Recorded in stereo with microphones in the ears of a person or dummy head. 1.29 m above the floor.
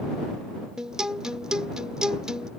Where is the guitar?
Centre (ahead or behind).